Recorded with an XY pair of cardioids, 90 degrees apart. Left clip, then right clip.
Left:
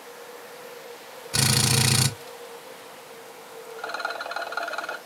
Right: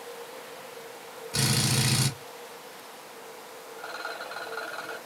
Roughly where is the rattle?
Ahead left.